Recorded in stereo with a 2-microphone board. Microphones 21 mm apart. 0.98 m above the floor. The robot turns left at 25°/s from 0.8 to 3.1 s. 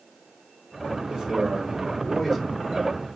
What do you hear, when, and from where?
1.1 s a man speaking: 145° right, 3 m; by 3.2 s 165° left, 3 m